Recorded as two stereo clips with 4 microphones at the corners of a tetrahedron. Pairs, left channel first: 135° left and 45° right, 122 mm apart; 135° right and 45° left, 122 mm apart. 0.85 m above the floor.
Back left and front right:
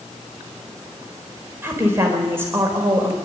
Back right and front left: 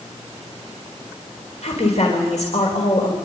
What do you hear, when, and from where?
1.6 s a woman speaking: 115° right, 4 m